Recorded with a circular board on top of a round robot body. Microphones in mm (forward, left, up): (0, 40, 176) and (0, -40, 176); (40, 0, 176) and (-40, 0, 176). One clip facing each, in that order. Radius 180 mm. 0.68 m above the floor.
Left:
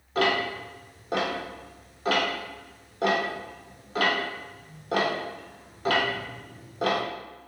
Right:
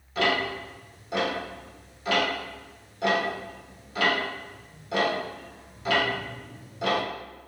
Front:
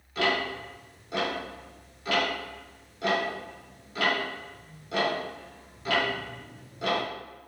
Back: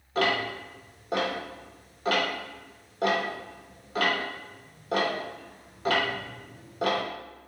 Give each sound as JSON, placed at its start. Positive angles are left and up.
{"t": 0.1, "sound": "ticking", "azimuth_deg": 135, "distance_m": 0.9}